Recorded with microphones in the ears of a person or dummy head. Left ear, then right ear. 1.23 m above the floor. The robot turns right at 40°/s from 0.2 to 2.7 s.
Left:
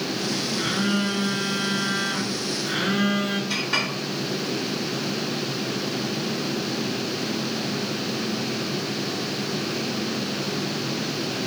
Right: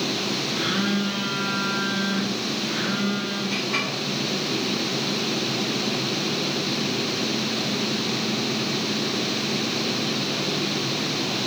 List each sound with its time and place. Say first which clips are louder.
0.6 s a phone buzzing: left 1 dB; 35° right, 0.8 m; by 3.4 s 50° left, 0.8 m
3.5 s a clink: left 1 dB; 75° left (ahead or behind), 2.0 m